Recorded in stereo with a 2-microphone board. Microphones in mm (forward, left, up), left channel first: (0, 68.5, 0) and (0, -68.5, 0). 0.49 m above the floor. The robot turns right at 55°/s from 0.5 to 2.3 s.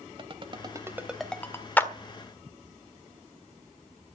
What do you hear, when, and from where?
0.2 s a ringtone: 40° right (ahead or behind), 1.2 m; by 1.7 s 25° left (ahead or behind), 1.2 m
1.8 s a clap: 10° left (ahead or behind), 1.4 m; by 1.9 s 20° left (ahead or behind), 1.4 m